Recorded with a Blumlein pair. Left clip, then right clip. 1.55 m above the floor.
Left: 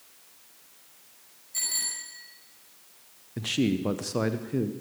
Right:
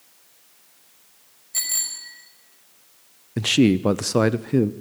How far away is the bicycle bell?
About 5.5 m.